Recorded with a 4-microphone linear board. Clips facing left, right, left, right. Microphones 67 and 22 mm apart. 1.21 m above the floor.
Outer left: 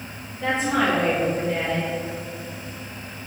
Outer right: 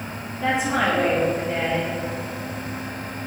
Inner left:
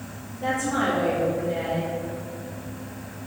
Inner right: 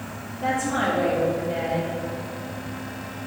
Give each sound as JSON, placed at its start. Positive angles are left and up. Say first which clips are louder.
{"t": 0.4, "sound": "a woman speaking", "louder": "even, inner right 1 dB", "side_deg": -5, "distance_m": 2.0}